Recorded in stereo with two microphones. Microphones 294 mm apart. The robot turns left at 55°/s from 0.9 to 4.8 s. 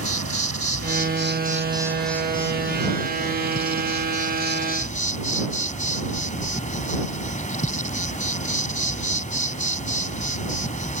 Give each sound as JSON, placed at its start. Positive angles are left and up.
{"t": 0.0, "sound": "an insect", "azimuth_deg": -120}